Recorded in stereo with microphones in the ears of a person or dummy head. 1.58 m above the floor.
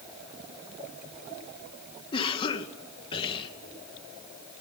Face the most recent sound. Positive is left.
turn(degrees=25)  # may be behind; listen again after turning